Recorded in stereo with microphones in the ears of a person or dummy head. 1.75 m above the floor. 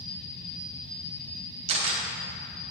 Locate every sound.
1.7 s a camera shutter: 40° right (ahead or behind), 1.9 m